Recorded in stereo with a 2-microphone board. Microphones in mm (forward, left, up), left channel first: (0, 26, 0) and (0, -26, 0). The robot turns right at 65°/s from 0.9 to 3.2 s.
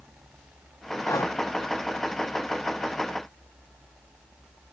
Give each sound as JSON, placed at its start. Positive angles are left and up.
{"t": 1.1, "sound": "breathing", "side_deg": 75}